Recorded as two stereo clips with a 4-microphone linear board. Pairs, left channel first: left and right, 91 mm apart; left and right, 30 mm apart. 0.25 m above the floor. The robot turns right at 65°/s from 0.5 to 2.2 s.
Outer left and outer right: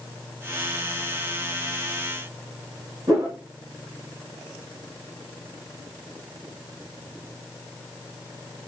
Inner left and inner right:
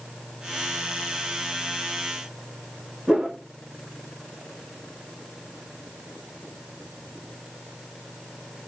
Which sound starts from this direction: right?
A whoosh, at 3.1 s.